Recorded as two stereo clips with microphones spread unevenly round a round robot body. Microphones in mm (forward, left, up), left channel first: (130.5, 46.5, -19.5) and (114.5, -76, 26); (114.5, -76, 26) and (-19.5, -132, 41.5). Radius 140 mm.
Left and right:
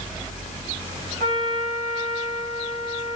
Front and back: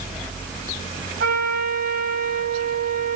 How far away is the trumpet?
About 3.5 m.